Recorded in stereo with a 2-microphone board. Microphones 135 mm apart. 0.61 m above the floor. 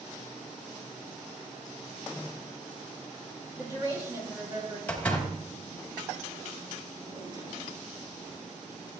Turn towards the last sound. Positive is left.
turn(degrees=-35)  # may be behind; listen again after turning